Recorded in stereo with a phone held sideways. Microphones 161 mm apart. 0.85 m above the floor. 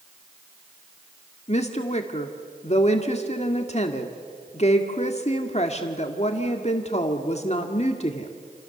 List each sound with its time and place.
1.5 s a woman speaking: 45° left (ahead or behind), 1.7 m